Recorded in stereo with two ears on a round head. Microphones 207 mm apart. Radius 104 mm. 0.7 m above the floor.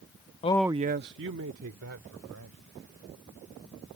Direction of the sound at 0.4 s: 30° left (ahead or behind).